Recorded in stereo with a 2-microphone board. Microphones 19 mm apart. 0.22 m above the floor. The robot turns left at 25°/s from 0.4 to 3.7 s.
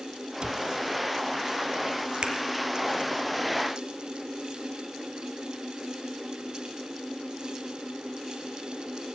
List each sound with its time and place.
0.4 s a cupboard door: 40° right (ahead or behind), 0.8 m; by 0.7 s 35° right (ahead or behind), 0.8 m
2.2 s a finger snap: 50° right (ahead or behind), 3 m